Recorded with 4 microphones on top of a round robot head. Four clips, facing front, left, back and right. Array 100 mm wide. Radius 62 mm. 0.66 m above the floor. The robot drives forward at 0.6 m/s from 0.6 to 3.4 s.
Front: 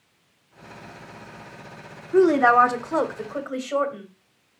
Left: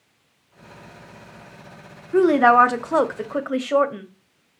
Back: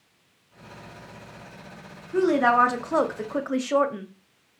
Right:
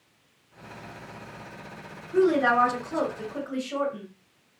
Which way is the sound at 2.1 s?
60° left.